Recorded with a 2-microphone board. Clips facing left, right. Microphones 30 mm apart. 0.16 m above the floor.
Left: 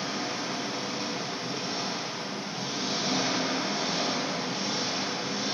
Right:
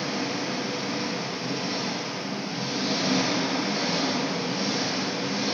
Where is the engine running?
55° right (ahead or behind), 1.9 m.